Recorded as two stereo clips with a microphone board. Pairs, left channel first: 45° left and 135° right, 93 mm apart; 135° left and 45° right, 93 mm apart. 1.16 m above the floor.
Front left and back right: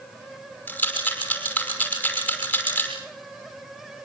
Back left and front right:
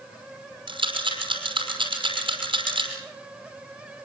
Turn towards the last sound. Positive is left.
turn(degrees=-30)